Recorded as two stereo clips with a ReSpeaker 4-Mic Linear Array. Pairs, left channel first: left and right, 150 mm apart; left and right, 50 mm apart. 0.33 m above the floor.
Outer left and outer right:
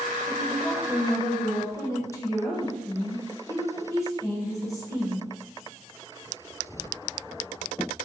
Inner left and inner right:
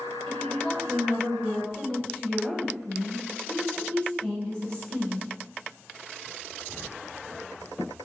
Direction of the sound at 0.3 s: 20° left (ahead or behind).